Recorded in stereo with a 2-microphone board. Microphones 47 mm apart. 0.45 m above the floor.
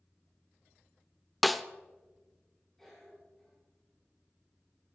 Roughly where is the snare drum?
Centre.